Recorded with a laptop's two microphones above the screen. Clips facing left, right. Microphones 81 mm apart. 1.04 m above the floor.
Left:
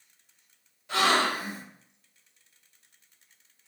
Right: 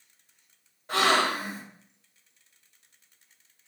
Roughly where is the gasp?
Right.